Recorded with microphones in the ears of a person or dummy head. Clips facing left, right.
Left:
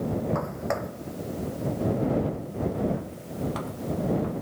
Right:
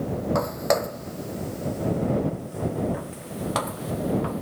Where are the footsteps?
50° right (ahead or behind); by 4.4 s 75° right (ahead or behind).